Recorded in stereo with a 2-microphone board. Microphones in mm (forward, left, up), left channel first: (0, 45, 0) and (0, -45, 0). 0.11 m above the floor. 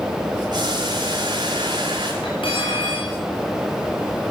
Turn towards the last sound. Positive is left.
turn(degrees=70)  # may be behind; listen again after turning